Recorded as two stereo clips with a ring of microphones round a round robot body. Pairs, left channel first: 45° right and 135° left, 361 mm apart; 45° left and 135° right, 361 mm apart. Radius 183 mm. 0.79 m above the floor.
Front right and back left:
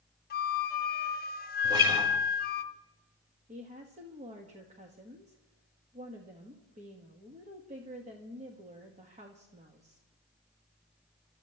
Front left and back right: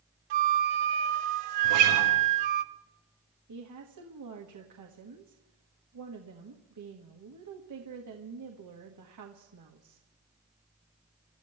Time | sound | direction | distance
0.3 | a flute | 110° right | 0.7 m
1.6 | a guitar | 145° right | 4 m
3.5 | a woman speaking | 155° right | 1.3 m